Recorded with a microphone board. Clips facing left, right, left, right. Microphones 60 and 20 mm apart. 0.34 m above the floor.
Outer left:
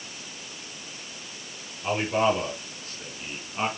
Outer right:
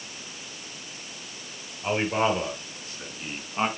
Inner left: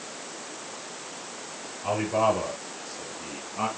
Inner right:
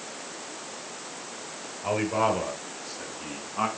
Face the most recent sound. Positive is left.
turn(degrees=-20)  # may be behind; listen again after turning